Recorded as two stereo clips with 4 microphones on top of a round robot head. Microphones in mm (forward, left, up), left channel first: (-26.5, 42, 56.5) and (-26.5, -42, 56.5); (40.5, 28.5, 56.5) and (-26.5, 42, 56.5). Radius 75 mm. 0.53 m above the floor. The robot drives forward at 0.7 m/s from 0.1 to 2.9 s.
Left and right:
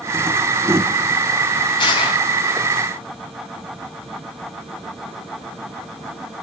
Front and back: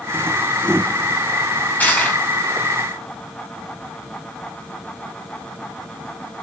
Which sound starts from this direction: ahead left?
Crushing, at 1.8 s.